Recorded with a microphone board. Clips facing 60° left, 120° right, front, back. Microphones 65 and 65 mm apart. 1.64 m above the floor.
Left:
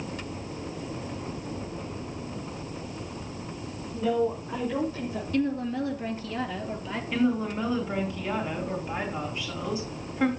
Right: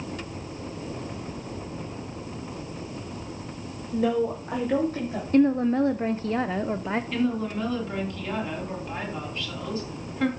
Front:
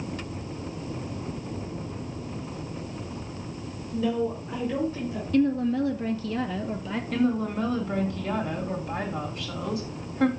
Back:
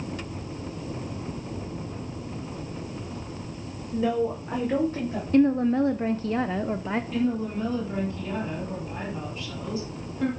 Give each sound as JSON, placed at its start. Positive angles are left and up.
{"t": 3.9, "sound": "a woman speaking", "azimuth_deg": -120, "distance_m": 2.0}
{"t": 5.3, "sound": "a woman speaking", "azimuth_deg": -150, "distance_m": 0.6}
{"t": 7.1, "sound": "a woman speaking", "azimuth_deg": -20, "distance_m": 3.0}